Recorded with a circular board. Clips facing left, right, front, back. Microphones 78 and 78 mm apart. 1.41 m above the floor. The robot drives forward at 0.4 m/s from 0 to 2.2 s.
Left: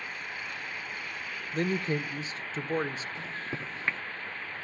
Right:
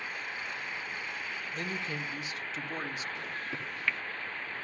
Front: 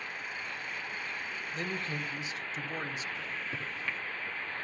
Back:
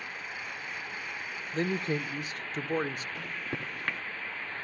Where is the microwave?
150° left, 0.7 m.